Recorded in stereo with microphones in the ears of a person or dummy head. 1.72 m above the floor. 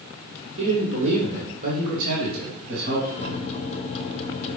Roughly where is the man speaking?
Right.